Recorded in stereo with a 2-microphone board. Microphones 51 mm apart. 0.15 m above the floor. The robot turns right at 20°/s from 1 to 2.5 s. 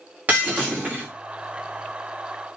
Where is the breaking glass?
30° right (ahead or behind), 5.5 m.